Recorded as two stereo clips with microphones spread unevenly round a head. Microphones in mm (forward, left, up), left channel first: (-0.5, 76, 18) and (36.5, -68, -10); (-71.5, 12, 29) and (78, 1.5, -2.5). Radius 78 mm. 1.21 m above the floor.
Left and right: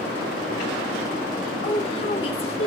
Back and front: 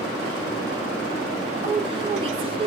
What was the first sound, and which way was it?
A woman speaking, 50° left.